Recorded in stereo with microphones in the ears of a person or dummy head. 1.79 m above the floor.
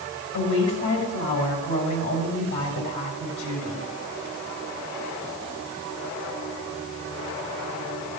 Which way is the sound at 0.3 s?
75° left (ahead or behind).